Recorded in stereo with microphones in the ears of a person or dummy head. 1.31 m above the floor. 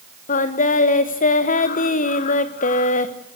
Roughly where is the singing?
Left.